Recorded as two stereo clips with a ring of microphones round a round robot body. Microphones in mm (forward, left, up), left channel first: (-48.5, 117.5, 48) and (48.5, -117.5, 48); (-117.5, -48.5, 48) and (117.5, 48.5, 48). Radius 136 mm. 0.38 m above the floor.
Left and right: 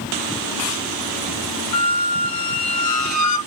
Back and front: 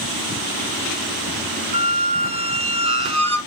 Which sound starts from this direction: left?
A squeak, at 1.7 s.